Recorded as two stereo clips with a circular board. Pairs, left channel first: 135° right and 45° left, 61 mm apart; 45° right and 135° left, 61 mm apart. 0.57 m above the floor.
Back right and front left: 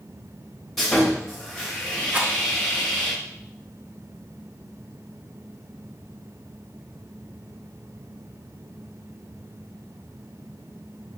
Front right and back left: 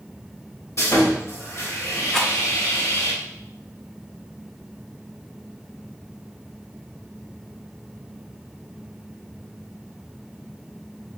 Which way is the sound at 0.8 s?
40° right.